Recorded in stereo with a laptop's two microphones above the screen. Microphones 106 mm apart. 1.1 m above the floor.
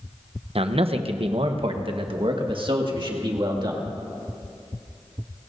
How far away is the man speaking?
About 0.8 m.